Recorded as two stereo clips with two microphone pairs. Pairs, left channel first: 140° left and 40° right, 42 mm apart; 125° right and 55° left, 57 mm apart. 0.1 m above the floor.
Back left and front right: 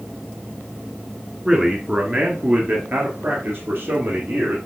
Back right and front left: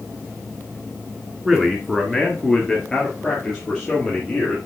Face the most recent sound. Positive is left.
turn(degrees=-45)